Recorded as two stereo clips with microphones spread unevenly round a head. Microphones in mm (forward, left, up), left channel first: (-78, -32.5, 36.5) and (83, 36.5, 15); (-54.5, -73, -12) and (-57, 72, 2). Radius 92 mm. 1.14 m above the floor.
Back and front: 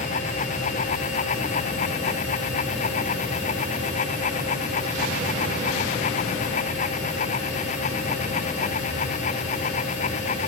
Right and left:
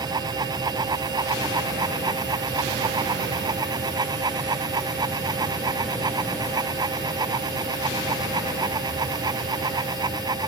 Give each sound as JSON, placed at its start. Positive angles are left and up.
{"t": 0.0, "sound": "a fan", "azimuth_deg": 155}